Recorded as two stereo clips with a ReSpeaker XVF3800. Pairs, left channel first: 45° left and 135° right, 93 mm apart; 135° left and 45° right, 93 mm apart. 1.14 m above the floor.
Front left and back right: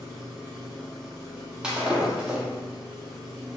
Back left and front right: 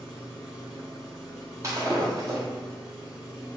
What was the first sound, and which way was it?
An engine running, 35° left.